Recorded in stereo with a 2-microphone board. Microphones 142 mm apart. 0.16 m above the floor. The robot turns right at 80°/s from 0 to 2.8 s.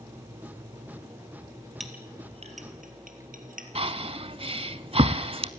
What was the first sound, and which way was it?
A clink, centre (ahead or behind).